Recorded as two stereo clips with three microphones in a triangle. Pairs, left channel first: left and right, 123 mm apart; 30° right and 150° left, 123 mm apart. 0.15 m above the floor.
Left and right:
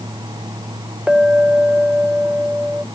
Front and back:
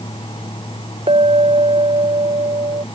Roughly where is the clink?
Behind.